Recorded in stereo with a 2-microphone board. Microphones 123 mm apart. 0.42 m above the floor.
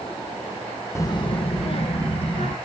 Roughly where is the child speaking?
Left.